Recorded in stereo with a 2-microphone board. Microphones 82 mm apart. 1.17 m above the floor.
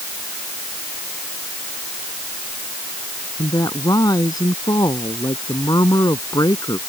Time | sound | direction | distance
3.4 | a woman speaking | 50° left (ahead or behind) | ?